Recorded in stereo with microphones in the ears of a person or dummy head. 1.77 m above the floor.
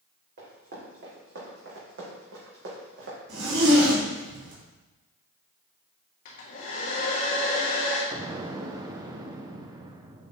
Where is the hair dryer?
50° left (ahead or behind), 1.8 m.